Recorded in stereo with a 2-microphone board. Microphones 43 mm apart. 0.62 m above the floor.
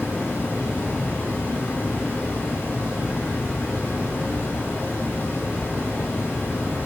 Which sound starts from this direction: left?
Running water, at 0.0 s.